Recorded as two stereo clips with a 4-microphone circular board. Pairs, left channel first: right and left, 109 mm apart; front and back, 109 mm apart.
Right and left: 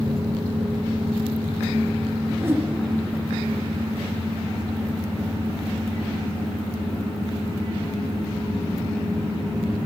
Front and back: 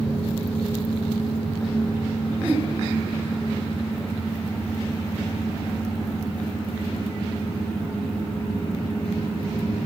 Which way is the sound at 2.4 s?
125° left.